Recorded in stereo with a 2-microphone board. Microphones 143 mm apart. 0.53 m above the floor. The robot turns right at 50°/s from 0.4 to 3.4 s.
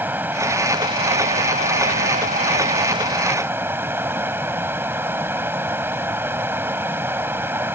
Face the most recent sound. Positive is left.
turn(degrees=-15)